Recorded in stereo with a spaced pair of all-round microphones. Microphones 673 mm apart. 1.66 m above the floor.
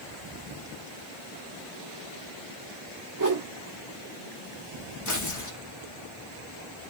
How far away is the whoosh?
About 0.7 m.